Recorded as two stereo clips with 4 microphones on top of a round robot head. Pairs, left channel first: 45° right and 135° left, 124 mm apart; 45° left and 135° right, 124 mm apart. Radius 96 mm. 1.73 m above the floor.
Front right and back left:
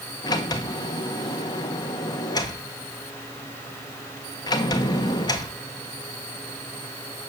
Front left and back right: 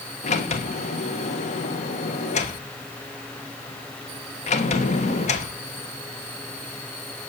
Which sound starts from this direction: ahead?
A sliding door, at 0.2 s.